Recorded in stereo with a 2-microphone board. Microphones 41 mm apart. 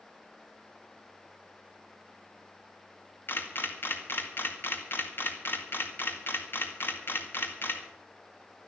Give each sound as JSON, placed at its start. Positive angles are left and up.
{"t": 3.3, "sound": "a camera shutter", "side_deg": 55, "distance_m": 1.9}